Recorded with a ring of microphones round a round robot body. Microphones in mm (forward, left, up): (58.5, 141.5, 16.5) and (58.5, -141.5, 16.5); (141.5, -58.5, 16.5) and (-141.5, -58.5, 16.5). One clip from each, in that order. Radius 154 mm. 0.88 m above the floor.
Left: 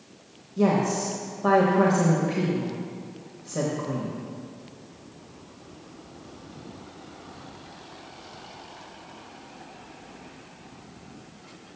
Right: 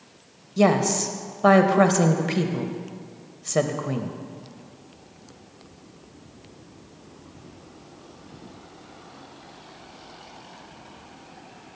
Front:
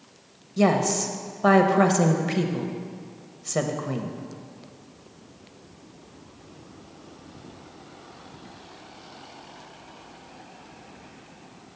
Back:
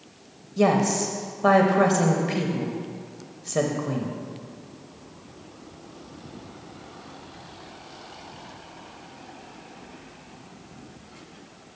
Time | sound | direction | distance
0.6 | a woman speaking | 75° right | 0.7 m